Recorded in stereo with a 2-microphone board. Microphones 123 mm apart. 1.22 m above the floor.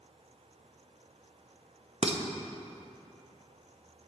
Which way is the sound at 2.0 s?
60° right (ahead or behind).